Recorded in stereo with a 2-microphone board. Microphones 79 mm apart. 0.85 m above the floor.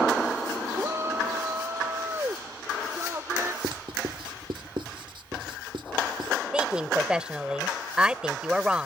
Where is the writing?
80° right.